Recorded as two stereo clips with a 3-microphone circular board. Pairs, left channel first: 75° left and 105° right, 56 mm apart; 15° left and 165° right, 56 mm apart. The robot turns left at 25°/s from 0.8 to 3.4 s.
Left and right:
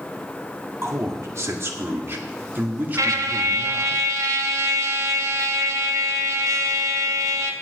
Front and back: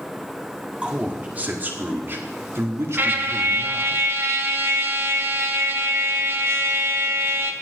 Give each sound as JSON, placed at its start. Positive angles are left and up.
{"t": 0.8, "sound": "a man speaking", "azimuth_deg": -100, "distance_m": 1.7}
{"t": 3.0, "sound": "a trumpet", "azimuth_deg": -115, "distance_m": 1.1}